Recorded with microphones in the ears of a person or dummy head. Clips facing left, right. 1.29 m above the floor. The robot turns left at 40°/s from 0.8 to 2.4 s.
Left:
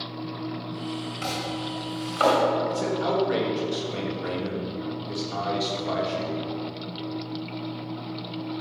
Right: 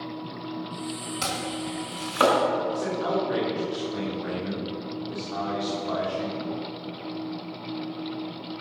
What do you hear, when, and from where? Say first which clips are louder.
1.2 s chopping: right 1 dB; 65° right (ahead or behind), 2.5 m; by 2.4 s 45° right (ahead or behind), 2.5 m
2.7 s a man speaking: left 1 dB; 35° left (ahead or behind), 3 m